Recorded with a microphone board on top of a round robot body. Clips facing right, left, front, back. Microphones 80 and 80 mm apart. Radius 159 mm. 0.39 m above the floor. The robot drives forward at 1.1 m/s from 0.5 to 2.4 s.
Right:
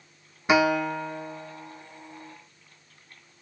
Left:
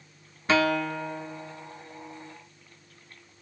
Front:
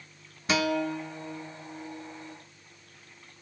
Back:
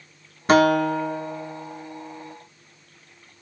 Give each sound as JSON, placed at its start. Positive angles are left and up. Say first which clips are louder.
{"t": 0.5, "sound": "a guitar", "louder": "right 2 dB, back 11 dB", "azimuth_deg": -160, "distance_m": 0.6}